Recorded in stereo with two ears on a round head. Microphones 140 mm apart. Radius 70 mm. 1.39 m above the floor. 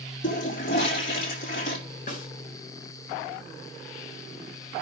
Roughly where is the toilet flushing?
Left.